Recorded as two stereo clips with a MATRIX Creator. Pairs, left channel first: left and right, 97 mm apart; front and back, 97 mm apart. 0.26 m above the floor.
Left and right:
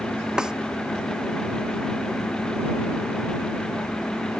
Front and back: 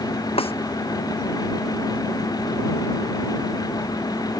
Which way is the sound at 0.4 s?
5° right.